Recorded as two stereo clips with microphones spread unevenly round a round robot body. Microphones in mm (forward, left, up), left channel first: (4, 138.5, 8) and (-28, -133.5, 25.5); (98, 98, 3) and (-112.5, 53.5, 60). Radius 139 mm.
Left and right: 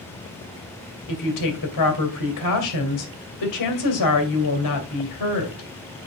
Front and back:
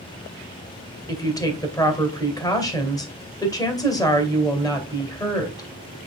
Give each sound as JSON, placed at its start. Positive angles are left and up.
{"t": 1.1, "sound": "a woman speaking", "azimuth_deg": 80, "distance_m": 2.5}